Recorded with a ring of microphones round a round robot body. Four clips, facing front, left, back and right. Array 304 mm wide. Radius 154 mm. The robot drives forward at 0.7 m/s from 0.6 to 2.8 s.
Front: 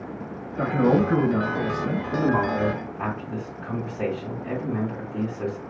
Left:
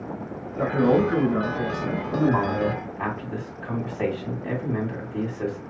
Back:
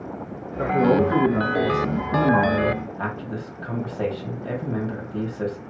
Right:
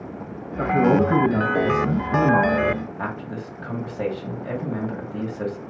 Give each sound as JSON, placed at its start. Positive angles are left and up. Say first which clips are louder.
{"t": 0.6, "sound": "a man speaking", "louder": "right 2 dB, back 2 dB", "azimuth_deg": -60, "distance_m": 2.5}
{"t": 2.1, "sound": "a man speaking", "louder": "right 4 dB, back 4 dB", "azimuth_deg": -125, "distance_m": 2.0}